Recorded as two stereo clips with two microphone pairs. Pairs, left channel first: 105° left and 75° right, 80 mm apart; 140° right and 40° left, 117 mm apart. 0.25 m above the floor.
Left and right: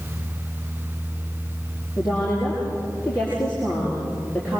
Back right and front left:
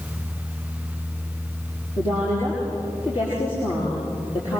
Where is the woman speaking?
Straight behind, 6.5 m.